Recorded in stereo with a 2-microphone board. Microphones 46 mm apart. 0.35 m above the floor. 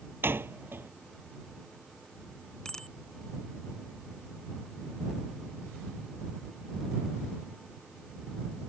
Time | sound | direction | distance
0.2 | a door slam | 55° right (ahead or behind) | ?
2.6 | a bicycle bell | 15° left (ahead or behind) | ?